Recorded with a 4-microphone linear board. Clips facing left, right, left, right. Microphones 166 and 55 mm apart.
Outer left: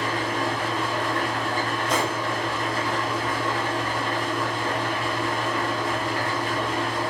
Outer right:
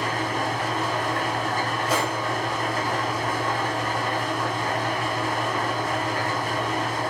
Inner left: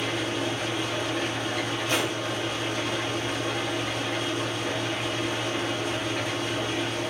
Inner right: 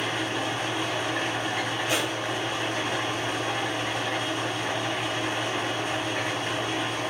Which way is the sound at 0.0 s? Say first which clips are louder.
Even, even; 45° right (ahead or behind).